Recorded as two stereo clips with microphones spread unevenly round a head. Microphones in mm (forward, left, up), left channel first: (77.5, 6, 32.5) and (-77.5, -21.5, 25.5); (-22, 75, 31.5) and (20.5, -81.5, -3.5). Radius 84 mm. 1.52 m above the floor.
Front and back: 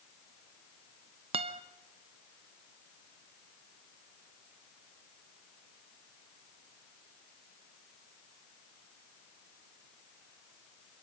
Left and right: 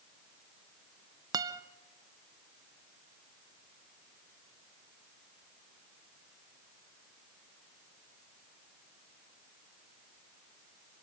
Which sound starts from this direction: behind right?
A guitar, at 1.3 s.